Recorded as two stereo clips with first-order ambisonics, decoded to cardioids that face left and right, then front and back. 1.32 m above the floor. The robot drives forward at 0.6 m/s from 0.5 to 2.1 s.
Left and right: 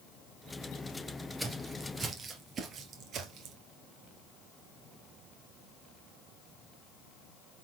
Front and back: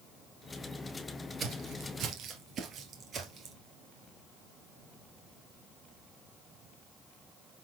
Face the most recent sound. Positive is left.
turn(degrees=-120)